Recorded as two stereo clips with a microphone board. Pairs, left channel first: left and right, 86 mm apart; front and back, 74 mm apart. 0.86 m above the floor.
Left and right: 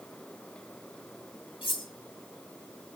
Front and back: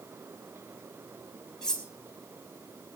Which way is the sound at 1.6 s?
80° left.